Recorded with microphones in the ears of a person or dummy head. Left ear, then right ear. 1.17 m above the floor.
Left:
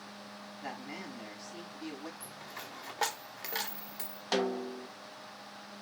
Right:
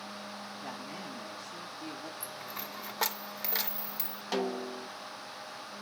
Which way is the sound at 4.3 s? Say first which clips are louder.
Left 1 dB; 10° left (ahead or behind).